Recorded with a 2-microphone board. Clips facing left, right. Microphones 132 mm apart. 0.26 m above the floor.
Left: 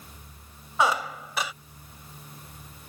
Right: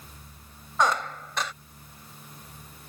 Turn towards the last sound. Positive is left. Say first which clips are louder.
# even
turn(degrees=10)  # may be behind; listen again after turning